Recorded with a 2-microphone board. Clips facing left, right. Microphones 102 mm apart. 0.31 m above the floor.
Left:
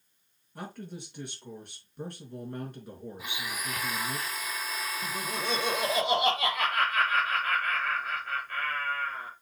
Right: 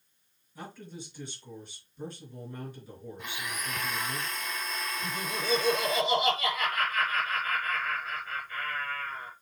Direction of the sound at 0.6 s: 60° left (ahead or behind).